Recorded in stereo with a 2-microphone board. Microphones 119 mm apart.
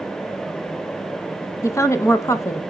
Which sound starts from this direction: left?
A woman speaking, at 1.6 s.